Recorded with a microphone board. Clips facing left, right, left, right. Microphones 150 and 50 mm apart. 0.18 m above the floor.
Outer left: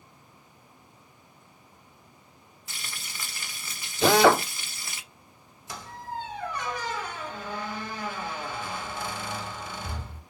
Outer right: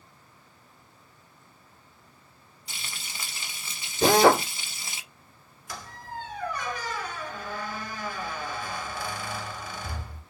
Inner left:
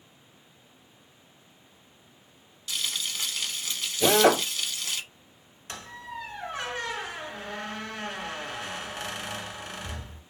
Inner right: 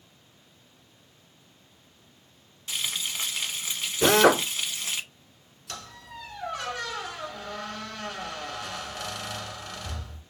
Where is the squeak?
25° left (ahead or behind), 1.2 m.